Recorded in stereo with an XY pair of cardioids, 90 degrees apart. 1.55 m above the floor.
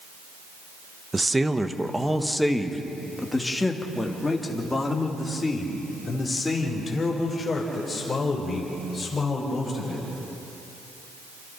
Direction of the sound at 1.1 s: 20° right.